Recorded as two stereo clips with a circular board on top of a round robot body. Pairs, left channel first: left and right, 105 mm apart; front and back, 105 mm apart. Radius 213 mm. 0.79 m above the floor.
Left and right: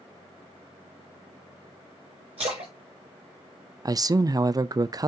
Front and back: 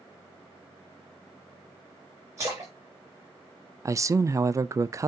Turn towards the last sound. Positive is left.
turn(degrees=-130)